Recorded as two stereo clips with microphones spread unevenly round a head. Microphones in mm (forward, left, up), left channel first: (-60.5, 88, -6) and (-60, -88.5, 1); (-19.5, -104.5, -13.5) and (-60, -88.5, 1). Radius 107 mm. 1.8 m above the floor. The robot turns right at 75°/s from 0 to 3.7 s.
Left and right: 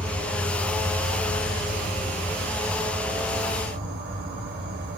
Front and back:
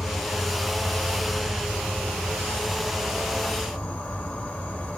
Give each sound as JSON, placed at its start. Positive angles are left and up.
{"t": 0.0, "sound": "an insect", "azimuth_deg": 0, "distance_m": 2.0}